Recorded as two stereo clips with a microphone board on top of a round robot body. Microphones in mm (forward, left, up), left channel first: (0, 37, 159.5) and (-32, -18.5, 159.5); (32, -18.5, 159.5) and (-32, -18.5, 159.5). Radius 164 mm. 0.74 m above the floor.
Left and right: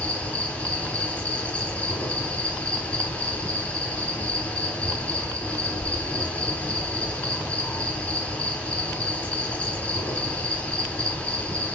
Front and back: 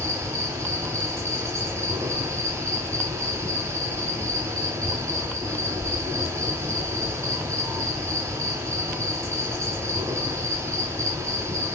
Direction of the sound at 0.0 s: 130° left.